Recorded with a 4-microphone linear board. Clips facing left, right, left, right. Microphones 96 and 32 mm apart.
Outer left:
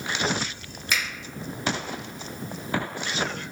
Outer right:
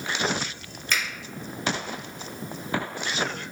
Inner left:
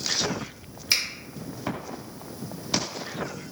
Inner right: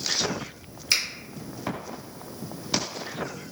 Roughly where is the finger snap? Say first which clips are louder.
Even, even; centre.